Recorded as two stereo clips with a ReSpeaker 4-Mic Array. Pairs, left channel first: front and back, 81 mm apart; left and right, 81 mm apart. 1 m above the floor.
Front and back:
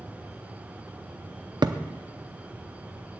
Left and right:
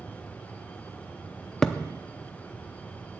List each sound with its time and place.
1.6 s a thud: 170° left, 0.6 m